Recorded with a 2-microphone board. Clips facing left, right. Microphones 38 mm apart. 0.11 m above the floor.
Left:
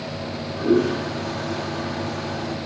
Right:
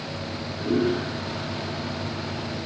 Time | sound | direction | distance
0.2 | a toilet flushing | 70° left (ahead or behind) | 5 m